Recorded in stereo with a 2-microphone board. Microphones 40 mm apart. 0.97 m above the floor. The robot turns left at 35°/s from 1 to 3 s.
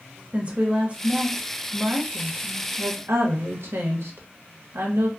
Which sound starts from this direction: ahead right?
A woman speaking, at 0.3 s.